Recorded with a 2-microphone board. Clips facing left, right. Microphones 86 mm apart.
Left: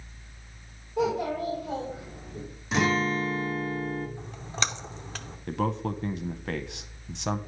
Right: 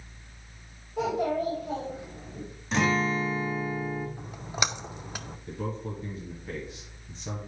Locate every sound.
1.0 s a child speaking: centre (ahead or behind), 3.5 m
2.7 s a guitar: 5° left (ahead or behind), 1.3 m
4.2 s a splash: 10° right (ahead or behind), 0.5 m
5.5 s a man speaking: 75° left (ahead or behind), 0.7 m